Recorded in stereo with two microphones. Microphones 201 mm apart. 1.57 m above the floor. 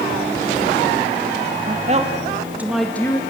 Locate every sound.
1.7 s a woman speaking: 40° right (ahead or behind), 1.9 m; by 3.2 s 15° left (ahead or behind), 1.7 m